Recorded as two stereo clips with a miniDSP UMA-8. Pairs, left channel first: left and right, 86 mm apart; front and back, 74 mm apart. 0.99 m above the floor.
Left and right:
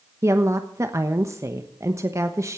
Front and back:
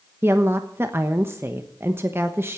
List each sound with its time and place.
0.2 s a woman speaking: 135° right, 1.1 m